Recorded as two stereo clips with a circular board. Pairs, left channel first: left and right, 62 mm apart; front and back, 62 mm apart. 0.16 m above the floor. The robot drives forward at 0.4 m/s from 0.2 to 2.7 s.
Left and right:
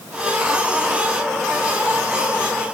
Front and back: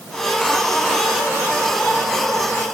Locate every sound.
Only background noise.